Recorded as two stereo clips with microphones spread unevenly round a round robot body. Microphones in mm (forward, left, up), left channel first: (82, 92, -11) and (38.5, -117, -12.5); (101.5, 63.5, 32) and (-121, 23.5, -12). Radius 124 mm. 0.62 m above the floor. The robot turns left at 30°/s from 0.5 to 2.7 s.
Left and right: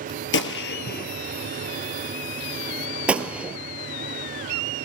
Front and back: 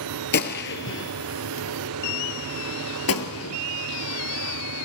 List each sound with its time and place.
0.3 s a gunshot: 50° left, 2 m; by 3.6 s 15° right, 2 m